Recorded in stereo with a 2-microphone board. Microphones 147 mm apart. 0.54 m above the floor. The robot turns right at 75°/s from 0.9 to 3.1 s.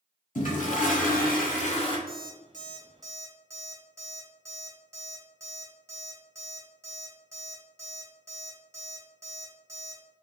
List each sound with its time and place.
0.3 s a toilet flushing: 65° left, 0.7 m; by 2.0 s 145° left, 0.7 m
2.1 s an alarm clock: 85° right, 1.1 m; by 10.0 s 20° right (ahead or behind), 1.1 m